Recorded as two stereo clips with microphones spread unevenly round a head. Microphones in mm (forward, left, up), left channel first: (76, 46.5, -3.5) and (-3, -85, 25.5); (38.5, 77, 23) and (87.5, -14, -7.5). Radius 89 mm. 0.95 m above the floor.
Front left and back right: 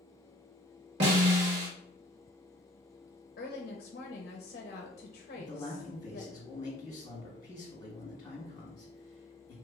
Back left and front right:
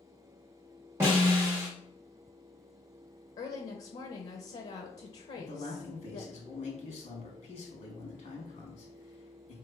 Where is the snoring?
I don't hear snoring.